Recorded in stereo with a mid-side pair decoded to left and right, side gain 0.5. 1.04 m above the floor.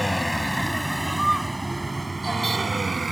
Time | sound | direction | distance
0.0 | a vehicle | 5° left | ?